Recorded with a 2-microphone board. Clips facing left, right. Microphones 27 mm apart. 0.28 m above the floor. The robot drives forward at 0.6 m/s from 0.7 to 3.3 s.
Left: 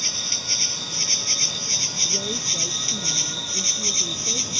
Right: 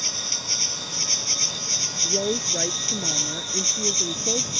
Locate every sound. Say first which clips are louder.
0.0 s an insect: left 2 dB; 20° left (ahead or behind); by 4.6 s 15° left (ahead or behind)
2.0 s a woman speaking: right 1 dB; 55° right (ahead or behind); by 4.5 s 65° right (ahead or behind)